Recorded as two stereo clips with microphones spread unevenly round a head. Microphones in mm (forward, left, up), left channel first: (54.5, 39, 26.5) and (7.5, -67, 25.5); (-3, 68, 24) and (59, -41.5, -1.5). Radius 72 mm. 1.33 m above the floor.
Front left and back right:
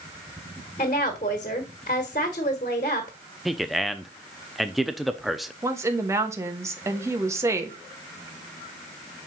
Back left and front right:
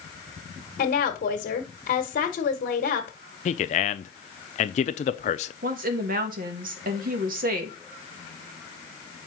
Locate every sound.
0.8 s a woman speaking: 110° left, 1.3 m
3.5 s a man speaking: 155° left, 0.6 m
5.6 s a woman speaking: 50° right, 1.4 m